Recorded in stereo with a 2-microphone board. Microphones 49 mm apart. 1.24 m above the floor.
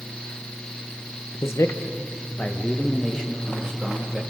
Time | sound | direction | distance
1.4 | a man speaking | 70° left (ahead or behind) | 1.2 m